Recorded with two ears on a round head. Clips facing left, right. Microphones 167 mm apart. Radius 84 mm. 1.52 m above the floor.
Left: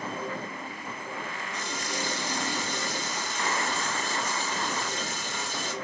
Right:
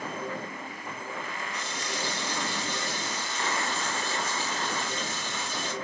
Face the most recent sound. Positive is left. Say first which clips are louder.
# left 3 dB
turn(degrees=45)  # may be behind; listen again after turning